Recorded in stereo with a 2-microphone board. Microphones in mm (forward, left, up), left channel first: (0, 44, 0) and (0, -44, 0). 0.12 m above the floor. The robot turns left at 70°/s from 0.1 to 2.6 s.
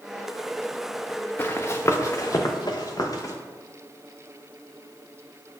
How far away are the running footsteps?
About 0.6 m.